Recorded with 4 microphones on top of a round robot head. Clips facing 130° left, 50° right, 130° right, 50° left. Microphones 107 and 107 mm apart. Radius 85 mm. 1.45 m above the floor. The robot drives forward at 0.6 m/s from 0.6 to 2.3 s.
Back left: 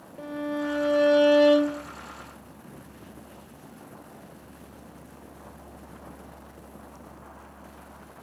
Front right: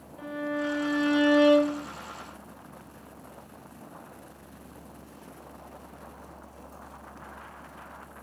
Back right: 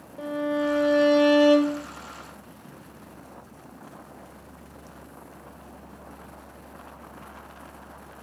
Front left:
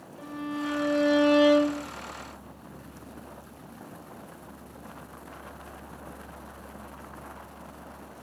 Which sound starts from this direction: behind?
A violin, at 0.2 s.